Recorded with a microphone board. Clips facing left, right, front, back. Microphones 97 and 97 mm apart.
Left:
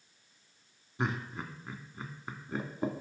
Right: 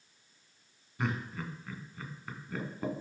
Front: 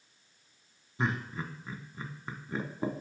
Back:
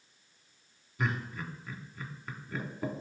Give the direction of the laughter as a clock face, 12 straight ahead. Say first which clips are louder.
Even, front 2 dB; 11 o'clock.